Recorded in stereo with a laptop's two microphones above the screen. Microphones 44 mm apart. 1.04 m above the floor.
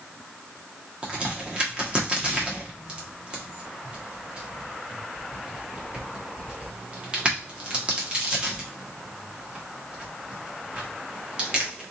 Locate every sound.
1.0 s a crack: 25° right (ahead or behind), 0.9 m